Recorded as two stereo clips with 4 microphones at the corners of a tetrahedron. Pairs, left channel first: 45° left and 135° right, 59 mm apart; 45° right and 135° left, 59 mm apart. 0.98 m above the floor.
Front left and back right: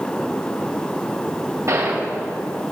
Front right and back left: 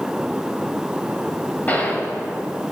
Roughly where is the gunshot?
Right.